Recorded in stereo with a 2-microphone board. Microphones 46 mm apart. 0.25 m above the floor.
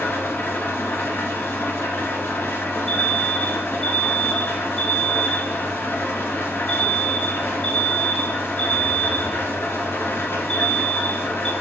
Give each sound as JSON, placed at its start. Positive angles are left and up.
{"t": 0.0, "sound": "an engine running", "side_deg": 65, "distance_m": 1.6}
{"t": 2.9, "sound": "an alarm", "side_deg": 20, "distance_m": 1.9}